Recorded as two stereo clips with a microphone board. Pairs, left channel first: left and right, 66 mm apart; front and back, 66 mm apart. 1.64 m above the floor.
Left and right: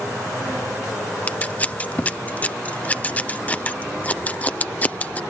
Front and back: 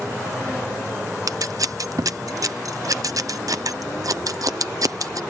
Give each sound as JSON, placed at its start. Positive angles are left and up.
{"t": 1.3, "sound": "scissors", "azimuth_deg": 155}